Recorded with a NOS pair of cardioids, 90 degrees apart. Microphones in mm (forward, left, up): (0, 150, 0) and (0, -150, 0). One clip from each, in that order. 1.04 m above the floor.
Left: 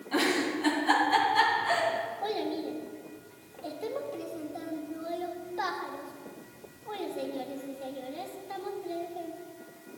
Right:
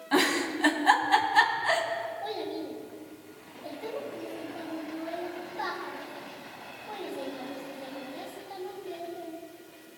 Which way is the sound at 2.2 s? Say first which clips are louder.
Left 2 dB; 30° left.